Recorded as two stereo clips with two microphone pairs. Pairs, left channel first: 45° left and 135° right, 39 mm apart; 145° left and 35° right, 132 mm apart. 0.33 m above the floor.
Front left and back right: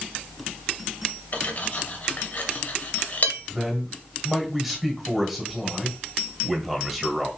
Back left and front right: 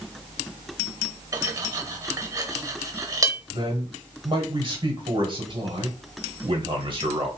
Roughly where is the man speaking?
Ahead right.